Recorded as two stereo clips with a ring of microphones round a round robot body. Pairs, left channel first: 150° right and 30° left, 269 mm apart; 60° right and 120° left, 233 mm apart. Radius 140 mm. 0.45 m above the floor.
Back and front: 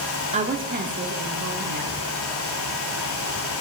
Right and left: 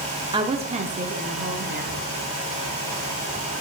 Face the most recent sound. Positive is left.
turn(degrees=70)